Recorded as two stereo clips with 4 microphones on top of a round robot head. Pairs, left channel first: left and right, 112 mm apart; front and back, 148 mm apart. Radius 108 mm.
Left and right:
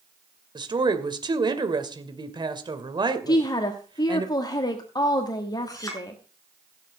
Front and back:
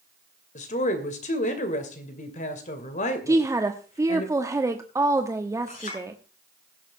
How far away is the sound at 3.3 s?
About 1.4 m.